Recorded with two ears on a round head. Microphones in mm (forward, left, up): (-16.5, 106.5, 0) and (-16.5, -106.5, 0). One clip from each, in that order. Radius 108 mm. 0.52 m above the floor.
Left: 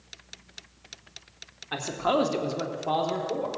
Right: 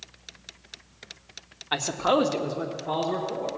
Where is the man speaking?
30° right (ahead or behind), 0.9 m; by 3.5 s 45° left (ahead or behind), 1.5 m.